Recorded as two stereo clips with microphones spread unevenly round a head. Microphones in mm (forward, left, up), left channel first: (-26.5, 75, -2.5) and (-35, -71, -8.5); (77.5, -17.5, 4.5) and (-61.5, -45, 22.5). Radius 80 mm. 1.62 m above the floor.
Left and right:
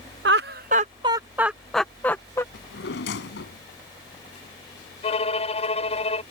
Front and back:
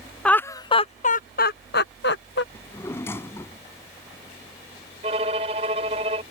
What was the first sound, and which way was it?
Laughter, 75° right.